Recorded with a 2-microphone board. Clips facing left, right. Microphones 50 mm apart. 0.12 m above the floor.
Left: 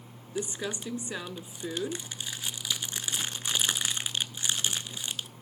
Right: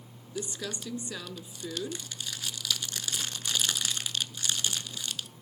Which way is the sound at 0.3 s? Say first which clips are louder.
Left 3 dB; 25° left (ahead or behind).